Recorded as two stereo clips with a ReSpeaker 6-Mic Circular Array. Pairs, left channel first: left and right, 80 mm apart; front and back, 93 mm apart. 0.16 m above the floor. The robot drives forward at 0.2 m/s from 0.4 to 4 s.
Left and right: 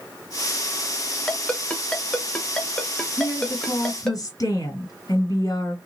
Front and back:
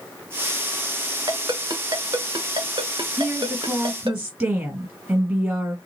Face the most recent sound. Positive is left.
turn(degrees=105)